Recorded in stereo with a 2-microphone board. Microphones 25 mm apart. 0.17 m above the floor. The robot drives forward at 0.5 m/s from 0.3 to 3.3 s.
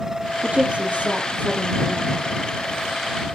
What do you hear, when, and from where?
0.4 s a woman speaking: 55° right (ahead or behind), 4.5 m; by 2.1 s 65° right (ahead or behind), 4.5 m